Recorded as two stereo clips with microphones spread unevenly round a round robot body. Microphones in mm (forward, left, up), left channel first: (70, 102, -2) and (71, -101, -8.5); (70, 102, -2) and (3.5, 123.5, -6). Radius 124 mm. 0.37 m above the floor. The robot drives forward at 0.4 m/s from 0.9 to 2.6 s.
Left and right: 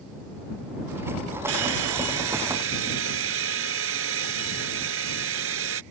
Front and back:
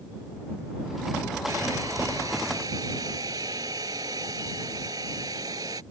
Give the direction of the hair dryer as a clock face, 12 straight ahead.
4 o'clock.